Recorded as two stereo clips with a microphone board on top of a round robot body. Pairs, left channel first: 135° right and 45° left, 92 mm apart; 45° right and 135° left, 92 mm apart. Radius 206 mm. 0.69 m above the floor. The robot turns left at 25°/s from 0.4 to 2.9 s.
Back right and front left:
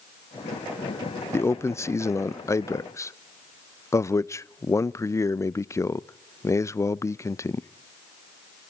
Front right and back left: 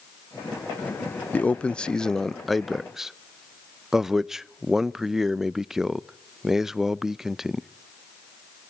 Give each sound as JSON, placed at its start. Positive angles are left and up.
{"t": 1.3, "sound": "a man speaking", "azimuth_deg": -105, "distance_m": 0.6}